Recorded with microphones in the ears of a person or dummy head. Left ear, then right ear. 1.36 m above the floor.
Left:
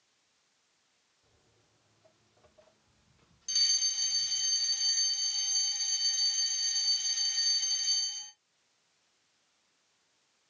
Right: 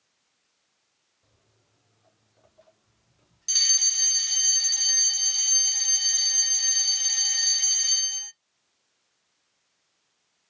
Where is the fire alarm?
20° right (ahead or behind), 0.7 m.